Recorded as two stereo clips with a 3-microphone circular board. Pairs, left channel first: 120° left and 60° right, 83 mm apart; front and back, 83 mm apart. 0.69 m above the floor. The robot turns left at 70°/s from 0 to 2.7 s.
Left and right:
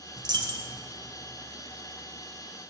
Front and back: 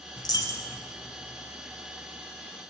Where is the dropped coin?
25° right, 1.6 m; by 0.8 s 65° right, 1.6 m.